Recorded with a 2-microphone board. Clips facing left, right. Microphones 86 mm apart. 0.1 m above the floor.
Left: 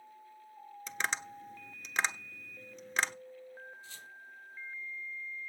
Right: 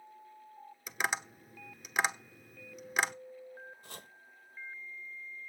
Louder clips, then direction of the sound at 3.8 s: Right 1 dB; 45° right (ahead or behind).